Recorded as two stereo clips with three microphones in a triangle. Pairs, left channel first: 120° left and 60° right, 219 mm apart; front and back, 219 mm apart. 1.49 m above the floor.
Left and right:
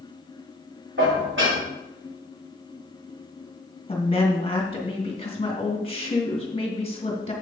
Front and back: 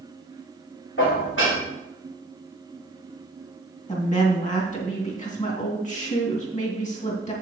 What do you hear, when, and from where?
1.0 s dishes clattering: 30° right, 3 m
3.9 s a woman speaking: 55° left, 2.5 m